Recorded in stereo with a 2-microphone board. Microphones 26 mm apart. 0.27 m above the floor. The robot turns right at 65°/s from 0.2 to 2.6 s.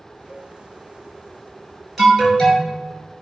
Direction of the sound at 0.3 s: 25° right (ahead or behind).